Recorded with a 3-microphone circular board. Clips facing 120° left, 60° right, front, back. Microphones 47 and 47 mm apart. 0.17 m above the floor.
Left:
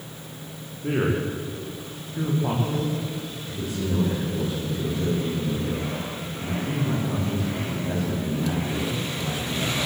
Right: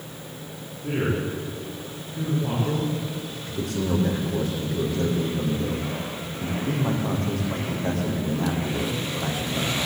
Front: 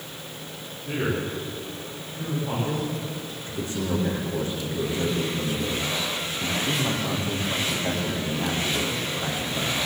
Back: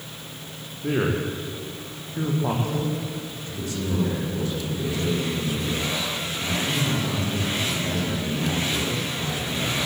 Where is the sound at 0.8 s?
175° left, 7.5 m.